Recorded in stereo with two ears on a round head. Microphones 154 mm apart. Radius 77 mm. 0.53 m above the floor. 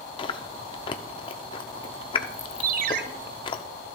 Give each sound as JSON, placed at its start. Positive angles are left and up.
{"t": 0.2, "sound": "chewing", "side_deg": 30, "distance_m": 0.7}
{"t": 2.6, "sound": "a ringtone", "side_deg": -50, "distance_m": 0.9}